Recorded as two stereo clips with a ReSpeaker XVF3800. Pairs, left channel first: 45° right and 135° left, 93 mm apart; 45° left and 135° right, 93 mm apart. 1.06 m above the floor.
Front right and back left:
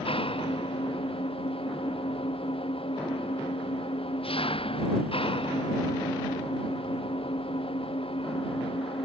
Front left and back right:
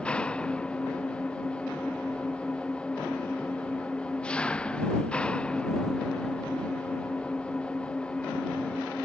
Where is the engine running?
35° right.